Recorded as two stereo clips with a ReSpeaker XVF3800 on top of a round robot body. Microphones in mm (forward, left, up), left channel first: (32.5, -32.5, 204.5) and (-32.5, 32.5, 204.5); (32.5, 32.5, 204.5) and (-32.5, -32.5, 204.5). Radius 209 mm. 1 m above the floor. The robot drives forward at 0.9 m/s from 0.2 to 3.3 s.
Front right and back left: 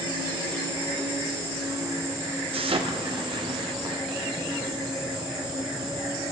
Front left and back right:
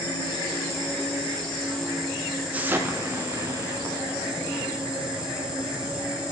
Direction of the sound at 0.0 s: 95° left.